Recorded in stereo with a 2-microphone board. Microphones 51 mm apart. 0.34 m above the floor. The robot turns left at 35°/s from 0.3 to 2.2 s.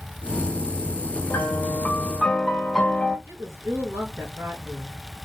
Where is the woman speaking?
70° right (ahead or behind), 4.5 m.